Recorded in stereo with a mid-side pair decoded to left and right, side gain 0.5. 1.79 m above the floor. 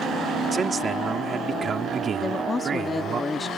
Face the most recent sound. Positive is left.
turn(degrees=25)